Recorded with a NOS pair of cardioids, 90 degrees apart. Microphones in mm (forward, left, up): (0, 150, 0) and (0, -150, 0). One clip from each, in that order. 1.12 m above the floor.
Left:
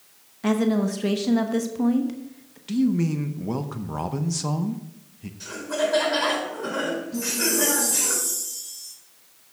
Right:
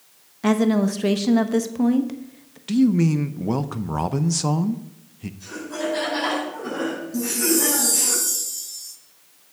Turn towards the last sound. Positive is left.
turn(degrees=-25)